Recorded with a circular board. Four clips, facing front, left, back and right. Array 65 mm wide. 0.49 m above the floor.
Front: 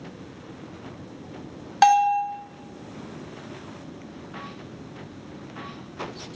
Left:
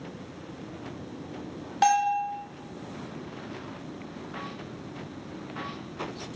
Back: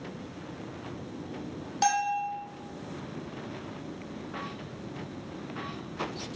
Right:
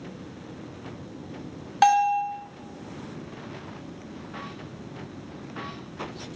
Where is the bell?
20° right, 2.0 m.